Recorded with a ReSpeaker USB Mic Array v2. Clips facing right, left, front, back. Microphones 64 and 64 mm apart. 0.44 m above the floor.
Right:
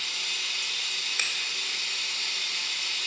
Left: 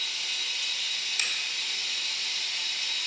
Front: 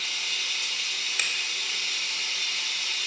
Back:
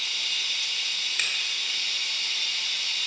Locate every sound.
0.0 s running water: 70° right, 0.9 m
1.2 s a finger snap: 80° right, 1.1 m